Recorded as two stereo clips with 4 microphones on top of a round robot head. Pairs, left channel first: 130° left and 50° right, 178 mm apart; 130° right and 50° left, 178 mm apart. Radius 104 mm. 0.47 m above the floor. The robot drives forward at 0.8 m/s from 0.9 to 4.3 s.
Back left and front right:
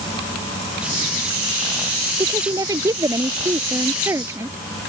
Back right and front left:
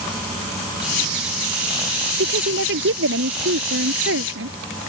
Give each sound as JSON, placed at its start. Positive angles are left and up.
{"t": 2.2, "sound": "a woman speaking", "azimuth_deg": 25}